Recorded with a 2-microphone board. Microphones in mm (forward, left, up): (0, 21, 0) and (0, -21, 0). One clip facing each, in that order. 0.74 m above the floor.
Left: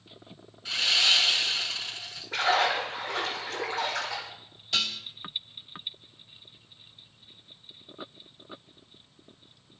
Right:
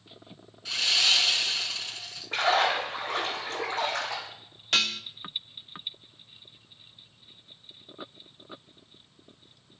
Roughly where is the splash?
Right.